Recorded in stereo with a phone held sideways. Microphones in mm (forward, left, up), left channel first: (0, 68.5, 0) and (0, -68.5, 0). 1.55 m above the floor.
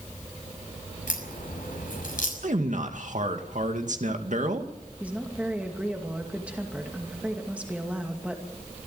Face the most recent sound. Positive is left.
turn(degrees=-10)  # may be behind; listen again after turning